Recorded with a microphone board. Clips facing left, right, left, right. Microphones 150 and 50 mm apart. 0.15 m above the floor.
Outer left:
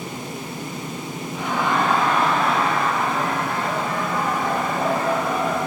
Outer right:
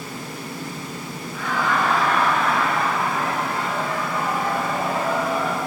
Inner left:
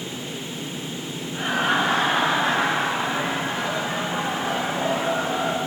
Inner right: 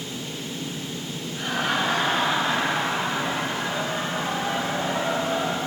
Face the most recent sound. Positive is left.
turn(degrees=35)  # may be behind; listen again after turning